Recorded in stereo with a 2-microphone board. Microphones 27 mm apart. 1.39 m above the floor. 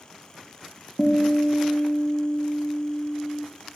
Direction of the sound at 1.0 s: 20° left (ahead or behind).